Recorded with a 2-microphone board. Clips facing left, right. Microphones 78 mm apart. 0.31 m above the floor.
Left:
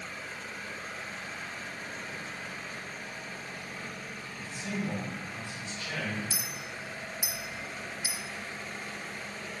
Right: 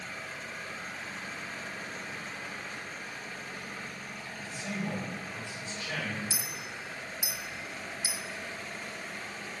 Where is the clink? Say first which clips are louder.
Even; 50° left (ahead or behind), 0.6 m.